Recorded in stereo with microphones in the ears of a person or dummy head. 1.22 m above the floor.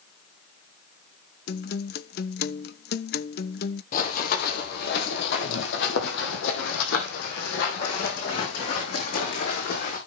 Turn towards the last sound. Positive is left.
turn(degrees=55)  # may be behind; listen again after turning